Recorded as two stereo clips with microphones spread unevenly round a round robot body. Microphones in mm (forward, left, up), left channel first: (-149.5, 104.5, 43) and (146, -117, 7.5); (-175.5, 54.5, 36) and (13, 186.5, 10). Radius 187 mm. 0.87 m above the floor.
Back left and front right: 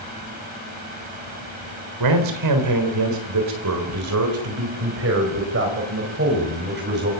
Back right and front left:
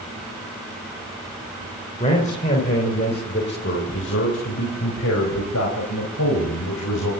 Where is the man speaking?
70° right, 3.5 m; by 7.1 s 100° right, 5.5 m.